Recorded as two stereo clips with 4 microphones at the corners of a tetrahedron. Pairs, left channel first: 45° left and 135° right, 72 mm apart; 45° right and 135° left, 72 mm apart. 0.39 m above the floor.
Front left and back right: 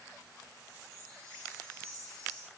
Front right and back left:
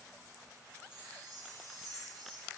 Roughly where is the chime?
Behind left.